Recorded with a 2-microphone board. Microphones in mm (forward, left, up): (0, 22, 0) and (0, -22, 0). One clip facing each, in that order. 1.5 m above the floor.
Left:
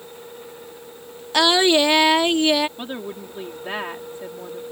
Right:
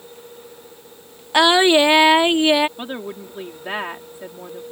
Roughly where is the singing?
Right.